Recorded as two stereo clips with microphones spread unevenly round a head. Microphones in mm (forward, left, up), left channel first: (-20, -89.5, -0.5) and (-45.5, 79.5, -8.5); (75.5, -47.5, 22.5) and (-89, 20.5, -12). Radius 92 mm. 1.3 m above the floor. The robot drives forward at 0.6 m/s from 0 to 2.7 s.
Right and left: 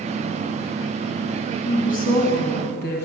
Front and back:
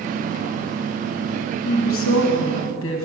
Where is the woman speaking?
30° right, 2.5 m; by 3.0 s 40° right, 1.8 m.